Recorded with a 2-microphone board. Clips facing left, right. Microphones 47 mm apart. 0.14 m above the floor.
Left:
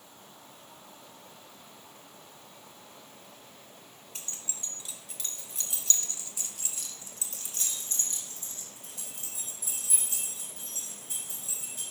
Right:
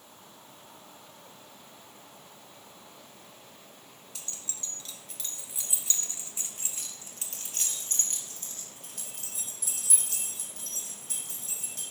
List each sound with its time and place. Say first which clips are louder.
4.2 s keys jangling: left 1 dB; 35° left (ahead or behind), 1.7 m; by 11.8 s 65° right (ahead or behind), 5.5 m